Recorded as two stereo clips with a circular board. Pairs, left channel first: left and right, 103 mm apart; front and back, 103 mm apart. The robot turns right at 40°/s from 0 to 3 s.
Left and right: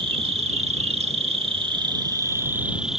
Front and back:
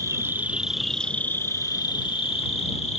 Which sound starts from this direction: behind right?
An insect, at 0.0 s.